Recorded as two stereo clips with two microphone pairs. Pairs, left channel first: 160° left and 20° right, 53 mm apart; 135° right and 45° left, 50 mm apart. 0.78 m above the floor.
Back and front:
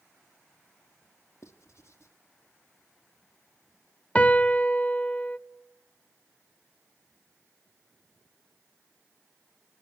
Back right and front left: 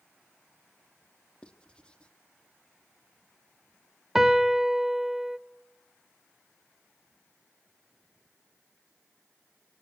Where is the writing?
160° left, 1.3 m.